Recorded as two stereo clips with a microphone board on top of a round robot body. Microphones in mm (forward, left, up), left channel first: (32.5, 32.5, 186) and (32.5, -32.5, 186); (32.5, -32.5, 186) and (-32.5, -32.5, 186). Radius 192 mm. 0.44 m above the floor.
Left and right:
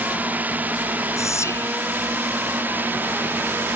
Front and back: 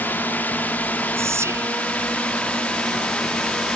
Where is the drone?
40° right; by 3.8 s 65° right.